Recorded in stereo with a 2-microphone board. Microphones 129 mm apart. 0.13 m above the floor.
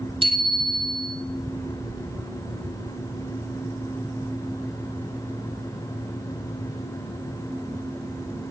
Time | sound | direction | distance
0.2 | a bicycle bell | 45° right (ahead or behind) | 3.5 m